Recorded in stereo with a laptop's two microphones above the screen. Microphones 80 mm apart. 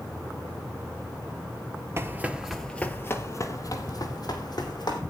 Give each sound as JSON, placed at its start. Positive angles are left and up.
{"t": 2.0, "sound": "running footsteps", "side_deg": -35, "distance_m": 1.2}